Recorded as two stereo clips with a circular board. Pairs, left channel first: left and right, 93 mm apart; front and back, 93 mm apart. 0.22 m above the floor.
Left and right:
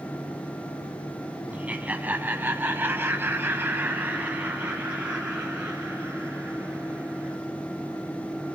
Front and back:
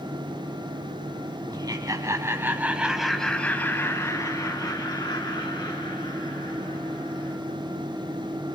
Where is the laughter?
160° right, 1.5 m; by 7.4 s 10° right, 3 m.